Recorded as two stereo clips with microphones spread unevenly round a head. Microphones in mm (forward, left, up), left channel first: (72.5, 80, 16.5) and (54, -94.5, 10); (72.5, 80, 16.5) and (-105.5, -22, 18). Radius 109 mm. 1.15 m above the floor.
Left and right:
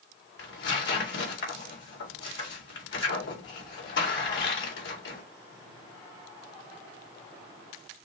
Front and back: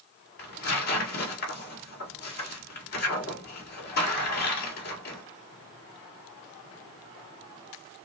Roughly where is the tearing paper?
Left.